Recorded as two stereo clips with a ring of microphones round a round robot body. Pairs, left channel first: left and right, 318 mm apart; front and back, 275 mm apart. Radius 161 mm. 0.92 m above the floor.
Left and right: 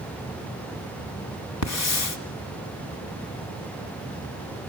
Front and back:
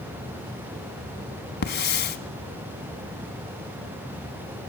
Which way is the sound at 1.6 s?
50° left.